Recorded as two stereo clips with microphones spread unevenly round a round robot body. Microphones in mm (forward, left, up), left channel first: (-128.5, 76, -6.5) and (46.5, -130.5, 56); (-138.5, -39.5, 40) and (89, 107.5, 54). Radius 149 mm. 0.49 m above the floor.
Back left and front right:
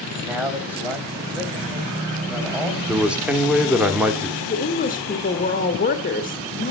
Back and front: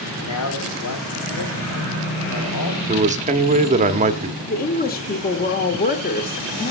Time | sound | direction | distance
0.2 | a man speaking | 140° right | 3.5 m
2.9 | a man speaking | 60° left | 1.2 m
4.5 | a woman speaking | 165° left | 1.3 m